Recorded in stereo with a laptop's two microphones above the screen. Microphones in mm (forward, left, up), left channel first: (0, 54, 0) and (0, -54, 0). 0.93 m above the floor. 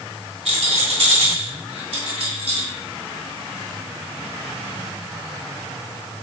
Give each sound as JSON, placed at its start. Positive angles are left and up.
{"t": 0.5, "sound": "a rattle", "side_deg": -75, "distance_m": 3.0}